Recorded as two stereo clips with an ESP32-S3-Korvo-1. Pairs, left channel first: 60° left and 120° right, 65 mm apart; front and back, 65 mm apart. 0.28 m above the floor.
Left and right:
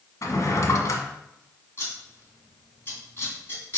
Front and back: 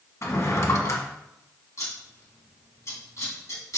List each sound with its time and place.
0.2 s a drawer: 35° left, 1.2 m
1.8 s scissors: 15° left, 2.5 m